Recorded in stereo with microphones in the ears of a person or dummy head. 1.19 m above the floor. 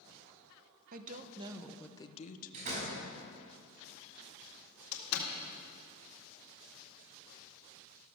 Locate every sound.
0.9 s a woman speaking: 40° right (ahead or behind), 1.1 m; by 3.5 s 70° left (ahead or behind), 1.7 m
2.5 s a door slam: 35° right (ahead or behind), 5.5 m
4.9 s a door slam: 75° left (ahead or behind), 1.9 m